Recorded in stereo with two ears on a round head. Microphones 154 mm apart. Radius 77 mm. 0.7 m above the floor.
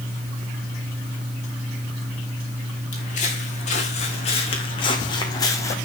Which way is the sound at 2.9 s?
45° left (ahead or behind).